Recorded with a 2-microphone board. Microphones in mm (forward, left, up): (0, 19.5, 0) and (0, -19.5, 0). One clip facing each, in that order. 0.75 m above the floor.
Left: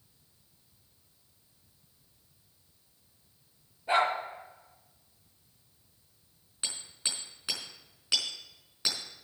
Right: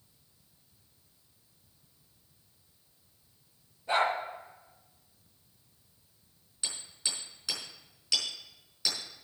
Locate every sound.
3.9 s a dog barking: 20° left (ahead or behind), 6 m
6.6 s hammering: 25° left (ahead or behind), 5 m